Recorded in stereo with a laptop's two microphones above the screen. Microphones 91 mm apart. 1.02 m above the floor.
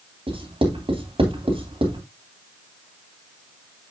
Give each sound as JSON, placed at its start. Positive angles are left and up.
{"t": 0.3, "sound": "writing", "side_deg": -80, "distance_m": 3.0}